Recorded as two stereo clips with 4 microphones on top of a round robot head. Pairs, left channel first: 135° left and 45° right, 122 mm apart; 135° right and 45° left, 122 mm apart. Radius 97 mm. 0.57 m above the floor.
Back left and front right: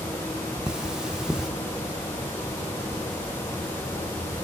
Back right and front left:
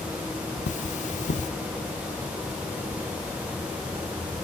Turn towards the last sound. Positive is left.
turn(degrees=-130)